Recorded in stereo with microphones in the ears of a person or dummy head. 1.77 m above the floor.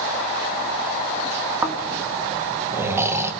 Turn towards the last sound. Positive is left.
turn(degrees=-15)  # may be behind; listen again after turning